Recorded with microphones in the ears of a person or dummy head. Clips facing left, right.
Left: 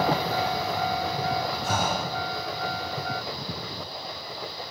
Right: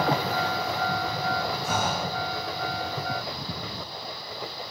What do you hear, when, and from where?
1.6 s breathing: 65° left (ahead or behind), 4.5 m